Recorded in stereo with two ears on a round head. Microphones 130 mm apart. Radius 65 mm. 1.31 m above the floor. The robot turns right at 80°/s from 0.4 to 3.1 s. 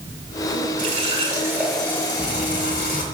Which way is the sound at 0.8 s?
75° right.